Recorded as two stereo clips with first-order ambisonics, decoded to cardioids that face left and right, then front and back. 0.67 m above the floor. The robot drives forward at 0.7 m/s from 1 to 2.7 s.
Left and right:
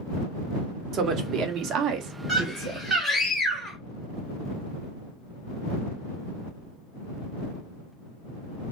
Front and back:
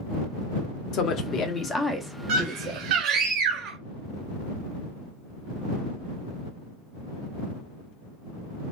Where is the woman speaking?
40° right, 1.1 m; by 2.9 s 125° right, 0.9 m.